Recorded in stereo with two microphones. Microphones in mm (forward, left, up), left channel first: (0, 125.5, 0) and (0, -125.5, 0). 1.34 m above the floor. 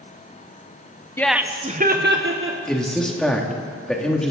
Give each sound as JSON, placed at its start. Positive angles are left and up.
{"t": 1.2, "sound": "laughter", "side_deg": 10, "distance_m": 0.7}
{"t": 2.7, "sound": "a man speaking", "side_deg": 0, "distance_m": 2.0}